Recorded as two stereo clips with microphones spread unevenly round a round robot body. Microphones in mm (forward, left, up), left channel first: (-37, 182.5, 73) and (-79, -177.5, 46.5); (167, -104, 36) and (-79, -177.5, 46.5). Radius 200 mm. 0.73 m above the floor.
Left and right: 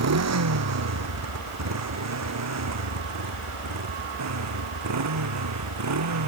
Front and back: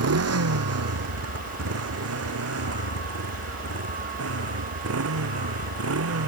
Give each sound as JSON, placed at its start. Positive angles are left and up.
{"t": 0.0, "sound": "a motorcycle", "azimuth_deg": -145}